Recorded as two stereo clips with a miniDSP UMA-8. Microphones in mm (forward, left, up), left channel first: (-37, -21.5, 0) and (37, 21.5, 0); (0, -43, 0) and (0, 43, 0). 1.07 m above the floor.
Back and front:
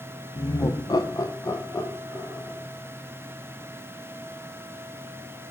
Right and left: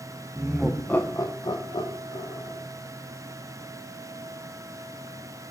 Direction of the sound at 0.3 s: 165° left.